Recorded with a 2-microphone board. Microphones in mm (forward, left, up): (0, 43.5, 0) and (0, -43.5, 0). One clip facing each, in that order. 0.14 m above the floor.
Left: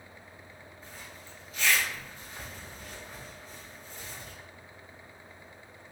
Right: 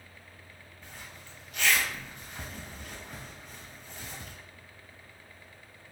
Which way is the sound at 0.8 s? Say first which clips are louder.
Right 1 dB; 70° right (ahead or behind).